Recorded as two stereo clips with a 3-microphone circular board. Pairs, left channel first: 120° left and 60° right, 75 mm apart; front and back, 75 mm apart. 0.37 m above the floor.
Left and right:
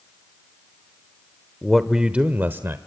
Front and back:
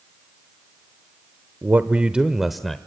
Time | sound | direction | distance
1.6 | a man speaking | 155° right | 0.9 m